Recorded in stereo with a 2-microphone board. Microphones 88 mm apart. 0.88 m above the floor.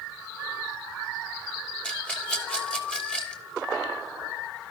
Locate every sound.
1.8 s a rattle: 10° left (ahead or behind), 3.5 m